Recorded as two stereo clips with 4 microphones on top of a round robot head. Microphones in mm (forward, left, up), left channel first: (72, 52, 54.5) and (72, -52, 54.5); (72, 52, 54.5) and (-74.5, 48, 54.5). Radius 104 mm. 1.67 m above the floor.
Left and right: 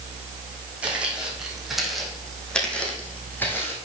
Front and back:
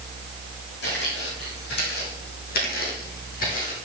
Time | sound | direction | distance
0.8 | footsteps | 10° right | 4 m